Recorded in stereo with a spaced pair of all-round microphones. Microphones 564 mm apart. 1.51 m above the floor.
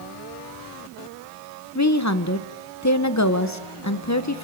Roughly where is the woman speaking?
Left.